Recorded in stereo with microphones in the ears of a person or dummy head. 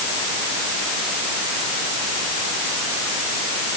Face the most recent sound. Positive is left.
No sound to turn to.